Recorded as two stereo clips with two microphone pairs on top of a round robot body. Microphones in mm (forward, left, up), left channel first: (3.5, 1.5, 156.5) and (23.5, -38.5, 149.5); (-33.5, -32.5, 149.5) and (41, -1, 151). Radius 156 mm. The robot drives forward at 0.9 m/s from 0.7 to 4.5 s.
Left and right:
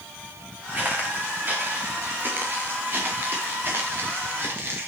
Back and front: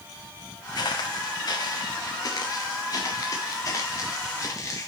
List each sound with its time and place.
0.8 s footsteps: 120° right, 2.5 m; by 4.9 s 100° right, 5 m